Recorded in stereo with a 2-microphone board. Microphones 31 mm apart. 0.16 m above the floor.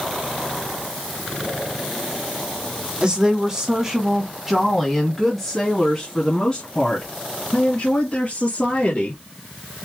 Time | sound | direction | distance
3.0 | a woman speaking | 30° right (ahead or behind) | 1.7 m